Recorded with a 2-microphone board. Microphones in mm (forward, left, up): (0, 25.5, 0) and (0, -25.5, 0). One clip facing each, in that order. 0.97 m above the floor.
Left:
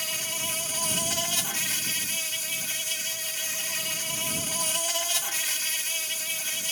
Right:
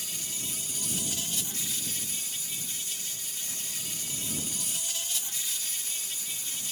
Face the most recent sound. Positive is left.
turn(degrees=85)